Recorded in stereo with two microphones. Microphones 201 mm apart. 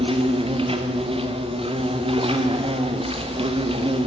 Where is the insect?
30° right (ahead or behind), 2 m.